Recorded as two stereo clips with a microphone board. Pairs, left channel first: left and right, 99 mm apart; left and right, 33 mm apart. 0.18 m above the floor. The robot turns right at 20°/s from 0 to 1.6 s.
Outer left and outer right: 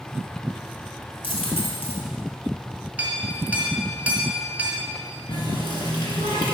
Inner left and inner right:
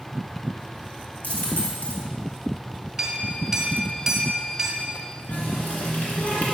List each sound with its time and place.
1.2 s a dropped coin: 70° left (ahead or behind), 1.3 m; by 2.0 s 75° left (ahead or behind), 1.3 m
3.0 s a clink: 15° right (ahead or behind), 1.2 m
5.3 s a running tap: 55° left (ahead or behind), 1.5 m